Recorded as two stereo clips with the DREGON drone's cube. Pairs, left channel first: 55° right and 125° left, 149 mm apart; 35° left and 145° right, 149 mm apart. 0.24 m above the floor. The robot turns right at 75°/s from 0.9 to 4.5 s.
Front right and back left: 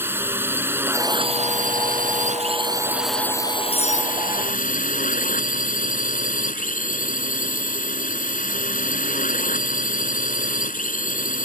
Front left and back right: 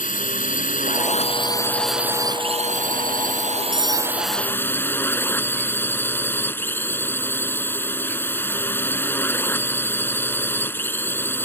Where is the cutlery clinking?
135° right; by 4.2 s 100° right.